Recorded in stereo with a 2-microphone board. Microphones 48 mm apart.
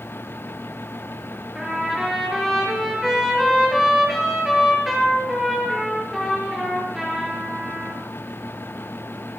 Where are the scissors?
I don't hear scissors.